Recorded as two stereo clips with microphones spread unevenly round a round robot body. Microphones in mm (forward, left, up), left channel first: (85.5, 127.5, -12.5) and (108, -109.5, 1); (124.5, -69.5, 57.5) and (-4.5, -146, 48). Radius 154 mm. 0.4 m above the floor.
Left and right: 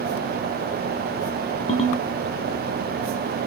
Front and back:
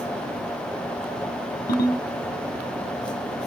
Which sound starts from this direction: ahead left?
A ringtone, at 1.7 s.